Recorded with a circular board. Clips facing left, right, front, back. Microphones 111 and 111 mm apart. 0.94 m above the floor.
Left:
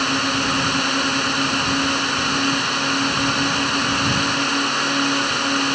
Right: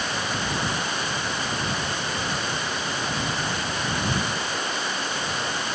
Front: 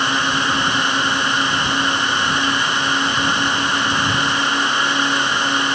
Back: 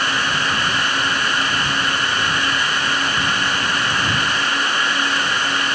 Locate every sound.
0.0 s a drone: 70° left